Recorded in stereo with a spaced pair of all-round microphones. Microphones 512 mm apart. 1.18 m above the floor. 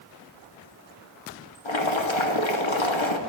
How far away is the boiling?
About 1.0 m.